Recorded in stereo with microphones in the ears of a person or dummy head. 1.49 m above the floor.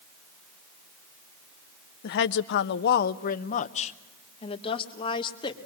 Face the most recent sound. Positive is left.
turn(degrees=25)  # may be behind; listen again after turning